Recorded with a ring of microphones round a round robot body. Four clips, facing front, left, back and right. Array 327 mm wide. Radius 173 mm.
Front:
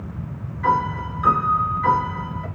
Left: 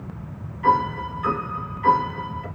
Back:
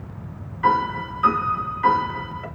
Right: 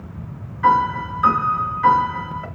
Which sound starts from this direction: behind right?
A piano, at 0.6 s.